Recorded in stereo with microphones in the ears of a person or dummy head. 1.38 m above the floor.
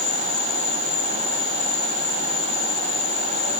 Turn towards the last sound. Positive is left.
turn(degrees=35)  # may be behind; listen again after turning